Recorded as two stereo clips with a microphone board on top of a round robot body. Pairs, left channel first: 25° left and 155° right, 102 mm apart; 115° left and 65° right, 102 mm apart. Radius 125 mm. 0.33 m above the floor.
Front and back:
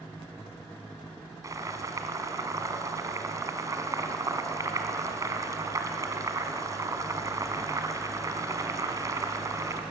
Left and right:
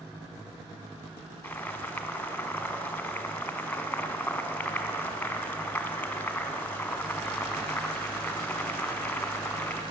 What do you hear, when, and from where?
1.4 s boiling: straight behind, 1.3 m